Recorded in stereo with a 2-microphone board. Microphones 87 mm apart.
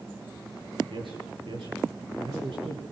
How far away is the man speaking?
About 7.5 m.